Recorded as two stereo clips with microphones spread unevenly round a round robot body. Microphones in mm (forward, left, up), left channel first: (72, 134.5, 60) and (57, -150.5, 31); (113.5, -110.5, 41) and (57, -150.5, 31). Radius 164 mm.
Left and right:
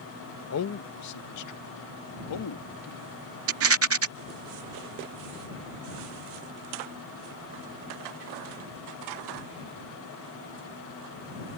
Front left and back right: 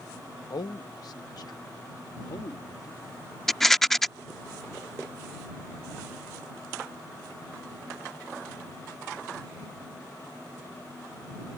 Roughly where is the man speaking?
Ahead left.